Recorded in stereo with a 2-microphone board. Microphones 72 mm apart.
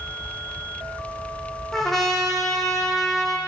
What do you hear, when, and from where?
1.7 s a trumpet: 5° left (ahead or behind), 2 m